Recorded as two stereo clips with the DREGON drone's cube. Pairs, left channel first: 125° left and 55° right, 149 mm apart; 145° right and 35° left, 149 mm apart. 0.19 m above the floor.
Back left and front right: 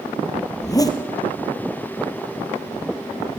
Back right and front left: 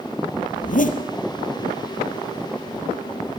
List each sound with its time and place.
0.6 s a zipper: 170° right, 2 m